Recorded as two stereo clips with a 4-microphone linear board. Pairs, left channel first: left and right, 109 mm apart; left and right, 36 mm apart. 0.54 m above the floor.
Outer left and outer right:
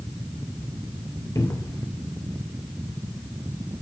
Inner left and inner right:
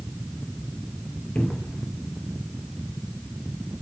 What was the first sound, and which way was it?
A cupboard door, 25° left (ahead or behind).